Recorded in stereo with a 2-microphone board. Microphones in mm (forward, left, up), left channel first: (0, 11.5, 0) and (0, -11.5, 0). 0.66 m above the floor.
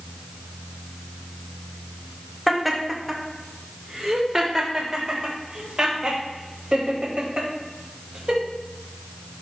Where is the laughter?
Centre (ahead or behind), 2 m; by 8.4 s 45° right (ahead or behind), 5 m.